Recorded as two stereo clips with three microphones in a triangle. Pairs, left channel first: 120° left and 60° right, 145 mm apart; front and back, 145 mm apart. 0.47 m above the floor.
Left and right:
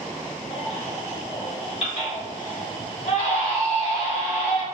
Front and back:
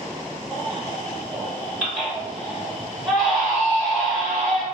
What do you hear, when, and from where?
0.5 s a baby crying: 90° left, 1.2 m